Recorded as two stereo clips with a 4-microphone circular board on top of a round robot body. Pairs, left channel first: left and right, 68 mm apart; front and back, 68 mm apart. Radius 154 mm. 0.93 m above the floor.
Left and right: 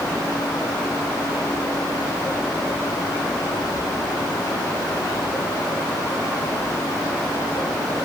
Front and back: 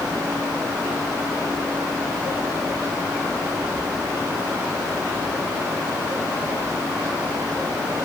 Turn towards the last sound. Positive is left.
No sound to turn to.